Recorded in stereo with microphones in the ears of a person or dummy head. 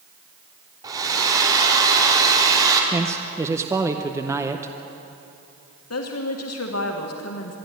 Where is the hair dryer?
15° right (ahead or behind), 3 m.